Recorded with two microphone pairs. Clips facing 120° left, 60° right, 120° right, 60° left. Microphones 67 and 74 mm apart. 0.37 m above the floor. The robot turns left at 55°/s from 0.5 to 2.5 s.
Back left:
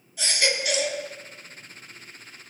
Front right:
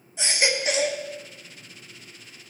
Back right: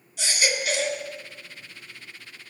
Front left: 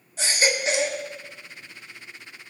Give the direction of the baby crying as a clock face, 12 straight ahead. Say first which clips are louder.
Front right 1 dB, front left 3 dB; 12 o'clock.